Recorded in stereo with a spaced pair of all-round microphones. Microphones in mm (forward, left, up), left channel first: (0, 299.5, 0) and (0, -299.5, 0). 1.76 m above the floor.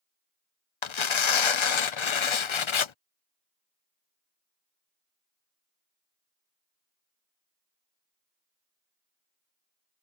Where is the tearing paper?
55° left (ahead or behind).